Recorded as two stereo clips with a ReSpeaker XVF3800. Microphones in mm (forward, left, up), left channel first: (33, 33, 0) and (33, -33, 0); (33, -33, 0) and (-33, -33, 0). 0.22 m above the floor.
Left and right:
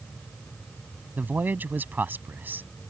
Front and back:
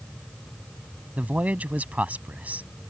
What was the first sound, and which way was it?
A man speaking, 130° right.